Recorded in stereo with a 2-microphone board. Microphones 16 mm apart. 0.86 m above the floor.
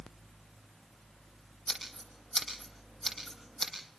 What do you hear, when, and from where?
1.7 s scissors: 25° left (ahead or behind), 9.5 m